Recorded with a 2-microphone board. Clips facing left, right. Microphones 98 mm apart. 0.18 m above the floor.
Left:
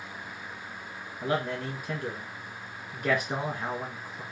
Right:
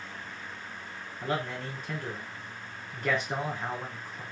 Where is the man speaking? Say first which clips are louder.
Left 3 dB; 10° left (ahead or behind), 1.3 m.